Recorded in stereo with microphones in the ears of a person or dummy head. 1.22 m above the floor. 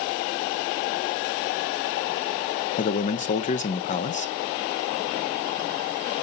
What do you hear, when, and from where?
2.8 s a man speaking: 40° left (ahead or behind), 0.7 m